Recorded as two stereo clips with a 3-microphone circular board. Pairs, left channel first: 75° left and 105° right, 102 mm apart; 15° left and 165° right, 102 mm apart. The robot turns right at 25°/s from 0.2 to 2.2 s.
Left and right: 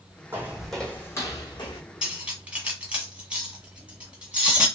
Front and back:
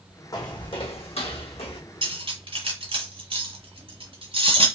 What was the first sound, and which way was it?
Footsteps, 35° right.